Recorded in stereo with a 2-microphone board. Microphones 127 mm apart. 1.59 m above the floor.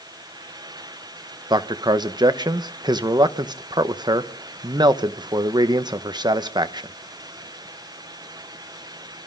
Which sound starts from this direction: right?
A man speaking, at 1.5 s.